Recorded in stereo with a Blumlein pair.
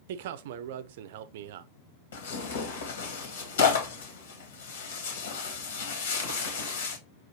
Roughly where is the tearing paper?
Ahead left.